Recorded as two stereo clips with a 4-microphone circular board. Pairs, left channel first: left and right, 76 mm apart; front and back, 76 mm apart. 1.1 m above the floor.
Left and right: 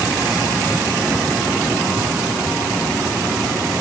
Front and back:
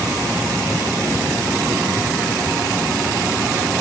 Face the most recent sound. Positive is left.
No sound to turn to.